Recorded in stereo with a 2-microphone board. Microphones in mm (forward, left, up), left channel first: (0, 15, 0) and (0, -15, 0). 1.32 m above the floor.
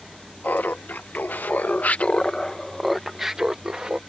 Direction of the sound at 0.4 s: 80° left.